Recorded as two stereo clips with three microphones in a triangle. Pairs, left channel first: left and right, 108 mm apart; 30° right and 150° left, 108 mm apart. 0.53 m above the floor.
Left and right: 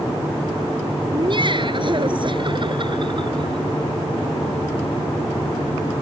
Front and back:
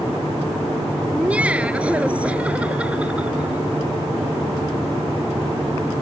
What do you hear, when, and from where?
1.1 s laughter: 130° right